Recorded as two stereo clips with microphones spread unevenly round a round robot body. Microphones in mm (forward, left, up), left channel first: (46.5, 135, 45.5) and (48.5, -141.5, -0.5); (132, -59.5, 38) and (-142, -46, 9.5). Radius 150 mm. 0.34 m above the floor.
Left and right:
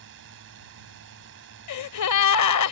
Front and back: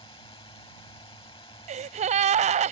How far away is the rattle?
No rattle in this recording.